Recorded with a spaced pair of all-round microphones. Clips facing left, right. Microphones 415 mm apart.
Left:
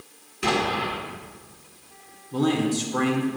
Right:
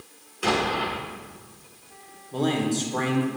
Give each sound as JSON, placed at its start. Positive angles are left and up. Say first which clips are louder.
{"t": 0.4, "sound": "an explosion", "louder": "even", "side_deg": 40, "distance_m": 1.3}
{"t": 2.3, "sound": "a man speaking", "louder": "left 2 dB", "side_deg": 25, "distance_m": 0.9}